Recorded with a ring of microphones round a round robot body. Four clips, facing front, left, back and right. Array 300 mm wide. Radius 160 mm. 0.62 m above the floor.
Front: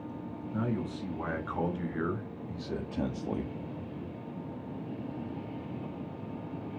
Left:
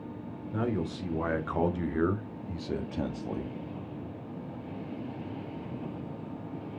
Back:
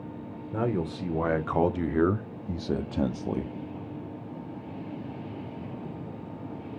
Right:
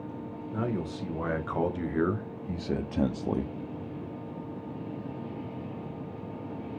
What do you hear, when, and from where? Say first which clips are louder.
0.5 s a man speaking: left 1 dB, back 5 dB; 170° left, 2.5 m; by 3.5 s 110° right, 1.2 m